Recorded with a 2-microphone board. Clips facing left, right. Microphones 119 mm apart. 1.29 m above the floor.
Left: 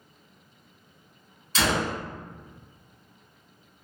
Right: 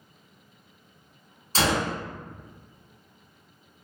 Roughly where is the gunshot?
Right.